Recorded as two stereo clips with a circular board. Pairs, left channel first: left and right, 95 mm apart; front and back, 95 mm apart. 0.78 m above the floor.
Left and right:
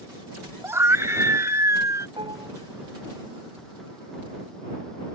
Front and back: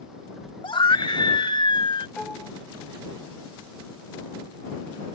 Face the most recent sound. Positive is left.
turn(degrees=-85)